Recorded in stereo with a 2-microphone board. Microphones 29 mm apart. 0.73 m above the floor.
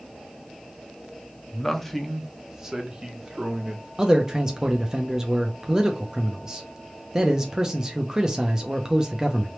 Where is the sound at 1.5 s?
20° left (ahead or behind), 0.7 m; by 3.9 s 30° right (ahead or behind), 1.8 m.